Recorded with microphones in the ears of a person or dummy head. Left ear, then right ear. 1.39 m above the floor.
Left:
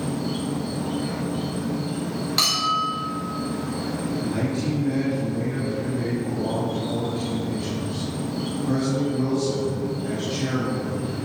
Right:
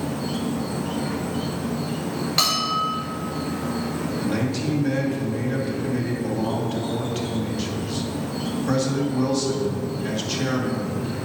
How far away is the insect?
About 1.0 m.